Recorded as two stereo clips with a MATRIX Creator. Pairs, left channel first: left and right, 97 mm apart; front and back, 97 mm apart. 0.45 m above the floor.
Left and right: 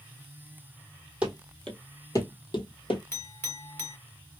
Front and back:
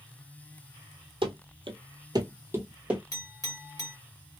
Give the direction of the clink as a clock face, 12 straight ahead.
11 o'clock.